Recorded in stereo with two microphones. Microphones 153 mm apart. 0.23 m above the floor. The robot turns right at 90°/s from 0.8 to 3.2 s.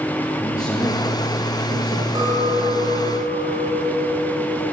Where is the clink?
155° right, 9.5 m; by 4.6 s 60° right, 9.5 m.